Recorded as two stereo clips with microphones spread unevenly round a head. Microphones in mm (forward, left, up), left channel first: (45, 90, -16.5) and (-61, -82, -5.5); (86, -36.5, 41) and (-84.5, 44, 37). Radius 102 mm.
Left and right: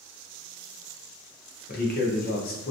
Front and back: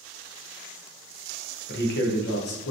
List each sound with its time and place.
1.7 s a man speaking: 10° left, 1.0 m